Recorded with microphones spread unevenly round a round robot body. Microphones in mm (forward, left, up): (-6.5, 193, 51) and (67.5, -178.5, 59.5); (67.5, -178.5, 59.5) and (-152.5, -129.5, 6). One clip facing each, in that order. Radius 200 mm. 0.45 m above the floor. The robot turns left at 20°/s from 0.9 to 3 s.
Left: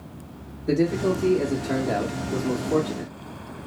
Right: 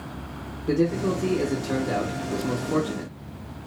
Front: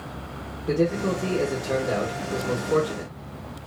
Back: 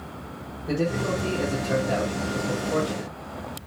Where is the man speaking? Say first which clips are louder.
Left 1 dB, front 3 dB; 30° left, 0.7 m; by 3.1 s 15° right, 0.7 m.